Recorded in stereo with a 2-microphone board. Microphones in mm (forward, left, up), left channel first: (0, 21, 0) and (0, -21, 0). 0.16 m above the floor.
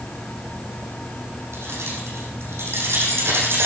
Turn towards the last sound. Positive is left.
turn(degrees=-65)  # may be behind; listen again after turning